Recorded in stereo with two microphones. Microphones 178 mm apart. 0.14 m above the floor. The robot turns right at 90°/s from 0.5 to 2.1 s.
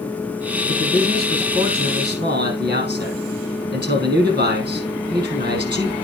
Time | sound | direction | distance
0.7 | a man speaking | 130° left | 5 m